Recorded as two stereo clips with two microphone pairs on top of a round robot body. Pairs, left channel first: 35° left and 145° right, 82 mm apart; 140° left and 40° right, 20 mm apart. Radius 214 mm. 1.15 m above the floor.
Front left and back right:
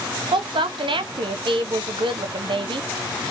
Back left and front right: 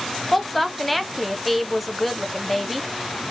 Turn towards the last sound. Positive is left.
turn(degrees=-130)